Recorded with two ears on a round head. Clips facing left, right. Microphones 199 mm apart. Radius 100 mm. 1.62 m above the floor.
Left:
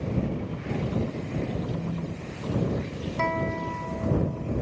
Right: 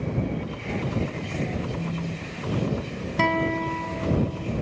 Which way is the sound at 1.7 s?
10° right (ahead or behind).